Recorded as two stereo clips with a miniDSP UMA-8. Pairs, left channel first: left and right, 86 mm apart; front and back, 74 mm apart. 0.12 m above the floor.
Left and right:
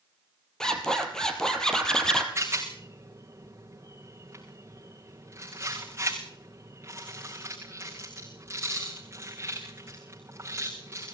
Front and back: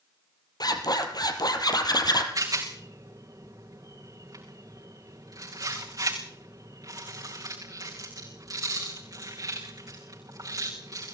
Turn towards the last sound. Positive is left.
turn(degrees=-150)